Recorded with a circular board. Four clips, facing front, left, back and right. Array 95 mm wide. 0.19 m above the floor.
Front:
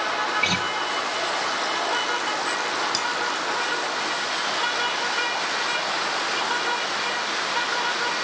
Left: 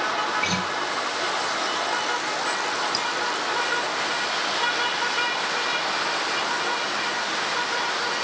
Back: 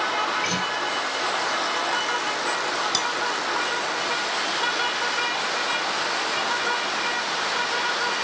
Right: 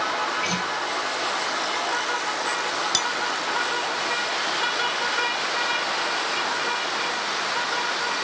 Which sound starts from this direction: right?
Cutlery clinking, at 2.9 s.